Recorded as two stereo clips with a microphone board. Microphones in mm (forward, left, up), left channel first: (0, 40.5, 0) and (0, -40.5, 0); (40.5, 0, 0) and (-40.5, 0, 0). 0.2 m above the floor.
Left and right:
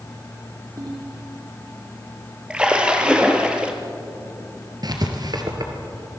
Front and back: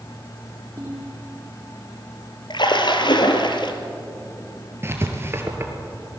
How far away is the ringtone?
About 5 m.